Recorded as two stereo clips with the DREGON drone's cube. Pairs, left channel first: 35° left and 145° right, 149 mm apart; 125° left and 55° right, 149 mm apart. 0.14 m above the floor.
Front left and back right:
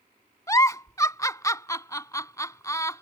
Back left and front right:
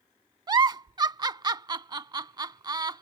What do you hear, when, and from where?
0.5 s a giggle: 15° right